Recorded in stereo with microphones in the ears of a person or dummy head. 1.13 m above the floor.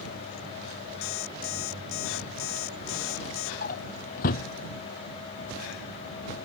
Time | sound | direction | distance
1.0 | an alarm clock | 80° left | ?
3.6 | a drawer | 50° left (ahead or behind) | ?